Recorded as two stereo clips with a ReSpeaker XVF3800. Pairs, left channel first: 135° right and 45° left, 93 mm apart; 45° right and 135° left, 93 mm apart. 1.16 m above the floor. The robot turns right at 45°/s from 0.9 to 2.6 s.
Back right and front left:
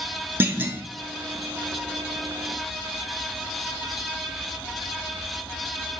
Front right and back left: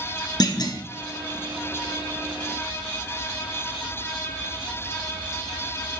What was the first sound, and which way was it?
A clunk, 20° right.